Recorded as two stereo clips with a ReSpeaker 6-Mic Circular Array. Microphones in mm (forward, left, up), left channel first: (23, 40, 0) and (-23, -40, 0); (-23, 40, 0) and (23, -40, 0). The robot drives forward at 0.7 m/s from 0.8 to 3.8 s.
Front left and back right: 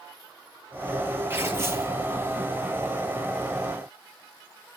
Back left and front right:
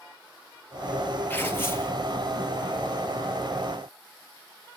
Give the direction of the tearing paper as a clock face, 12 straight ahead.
6 o'clock.